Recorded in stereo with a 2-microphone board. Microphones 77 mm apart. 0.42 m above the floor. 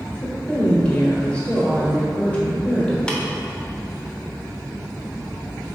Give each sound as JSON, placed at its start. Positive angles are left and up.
{"t": 0.2, "sound": "a woman speaking", "side_deg": 15, "distance_m": 1.7}
{"t": 3.1, "sound": "tapping", "side_deg": 10, "distance_m": 0.9}